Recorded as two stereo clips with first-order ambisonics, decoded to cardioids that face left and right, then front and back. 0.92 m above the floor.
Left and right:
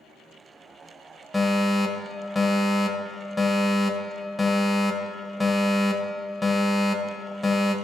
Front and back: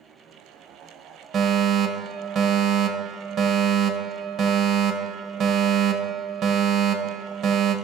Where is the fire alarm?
160° left, 1.4 m.